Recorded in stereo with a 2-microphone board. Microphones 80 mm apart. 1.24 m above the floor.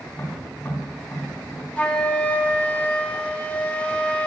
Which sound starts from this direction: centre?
A flute, at 1.8 s.